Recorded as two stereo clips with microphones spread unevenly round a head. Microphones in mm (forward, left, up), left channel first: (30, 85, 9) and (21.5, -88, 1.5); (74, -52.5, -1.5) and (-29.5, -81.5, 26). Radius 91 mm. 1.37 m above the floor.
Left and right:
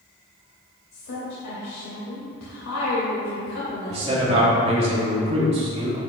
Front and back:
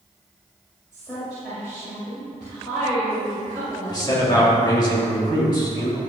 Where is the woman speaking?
95° left, 2.5 m.